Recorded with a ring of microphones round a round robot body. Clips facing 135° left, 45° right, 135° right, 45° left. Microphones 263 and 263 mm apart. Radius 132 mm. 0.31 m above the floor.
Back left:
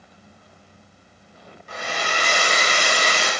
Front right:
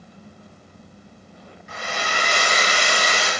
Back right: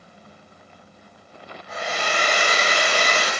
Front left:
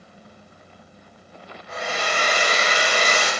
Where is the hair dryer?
140° left, 0.7 m.